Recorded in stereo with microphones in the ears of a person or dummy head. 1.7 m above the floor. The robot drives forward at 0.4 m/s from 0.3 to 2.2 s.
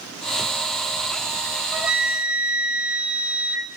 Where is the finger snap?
I don't hear a finger snap.